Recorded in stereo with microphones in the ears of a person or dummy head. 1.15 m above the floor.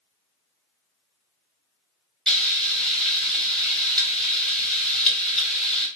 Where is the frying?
Centre (ahead or behind), 1.1 m.